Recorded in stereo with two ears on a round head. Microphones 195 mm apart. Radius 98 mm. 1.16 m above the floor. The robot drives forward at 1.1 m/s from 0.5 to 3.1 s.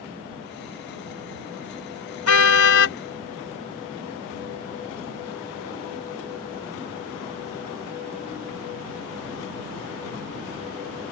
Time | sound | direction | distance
2.3 | a car horn | 75° left (ahead or behind) | ?